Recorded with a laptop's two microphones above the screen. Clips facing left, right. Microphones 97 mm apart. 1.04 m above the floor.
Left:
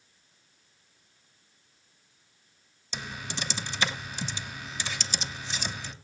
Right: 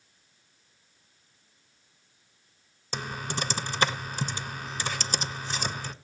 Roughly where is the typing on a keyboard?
Right.